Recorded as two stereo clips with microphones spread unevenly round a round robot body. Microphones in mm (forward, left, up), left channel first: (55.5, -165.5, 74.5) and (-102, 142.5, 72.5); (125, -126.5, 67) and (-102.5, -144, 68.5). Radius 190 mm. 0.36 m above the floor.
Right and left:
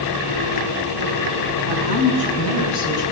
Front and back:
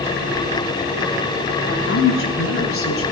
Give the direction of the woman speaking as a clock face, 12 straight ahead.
1 o'clock.